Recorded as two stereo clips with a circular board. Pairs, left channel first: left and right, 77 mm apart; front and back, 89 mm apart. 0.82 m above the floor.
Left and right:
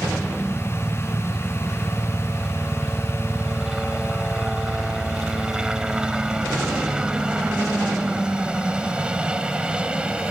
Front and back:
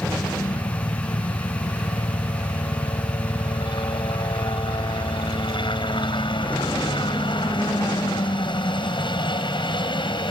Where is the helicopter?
5° right; by 10.3 s 15° right.